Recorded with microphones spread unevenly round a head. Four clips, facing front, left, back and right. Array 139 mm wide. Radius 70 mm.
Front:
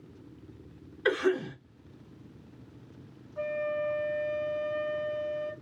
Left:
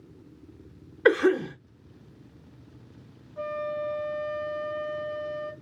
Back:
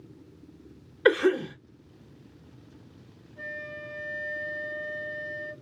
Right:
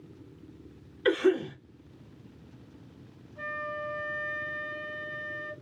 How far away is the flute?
About 0.6 m.